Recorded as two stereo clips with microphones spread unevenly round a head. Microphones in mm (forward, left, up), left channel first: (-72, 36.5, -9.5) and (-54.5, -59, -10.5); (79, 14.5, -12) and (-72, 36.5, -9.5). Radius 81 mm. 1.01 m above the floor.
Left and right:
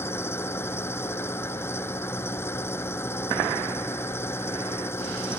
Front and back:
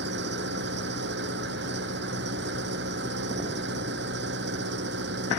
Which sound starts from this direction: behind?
An engine running, at 0.0 s.